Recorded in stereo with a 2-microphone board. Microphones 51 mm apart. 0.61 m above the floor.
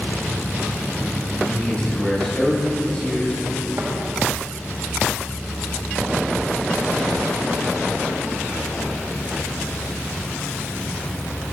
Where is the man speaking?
20° left (ahead or behind), 1.3 m.